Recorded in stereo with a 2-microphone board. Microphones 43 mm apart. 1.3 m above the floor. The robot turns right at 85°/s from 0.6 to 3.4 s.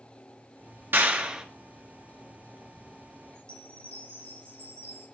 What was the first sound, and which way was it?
A clap, 55° right.